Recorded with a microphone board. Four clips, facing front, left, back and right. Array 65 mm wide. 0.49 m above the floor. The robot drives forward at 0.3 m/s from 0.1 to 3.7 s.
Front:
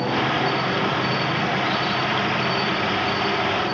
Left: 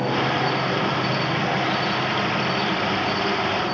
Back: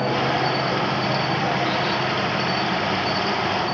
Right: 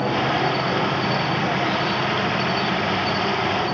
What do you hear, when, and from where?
0.0 s an insect: 145° right, 3 m; by 3.7 s 155° right, 4 m